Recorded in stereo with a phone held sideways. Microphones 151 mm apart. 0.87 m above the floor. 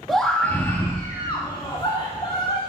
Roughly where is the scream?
Centre.